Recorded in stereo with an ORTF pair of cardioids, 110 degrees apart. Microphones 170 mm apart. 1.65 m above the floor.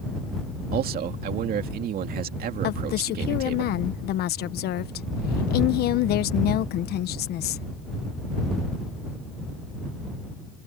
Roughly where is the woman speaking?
Left.